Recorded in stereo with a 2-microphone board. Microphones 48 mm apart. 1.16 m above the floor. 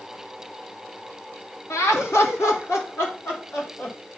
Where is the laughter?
75° left (ahead or behind), 2 m; by 4.0 s 45° left (ahead or behind), 4 m.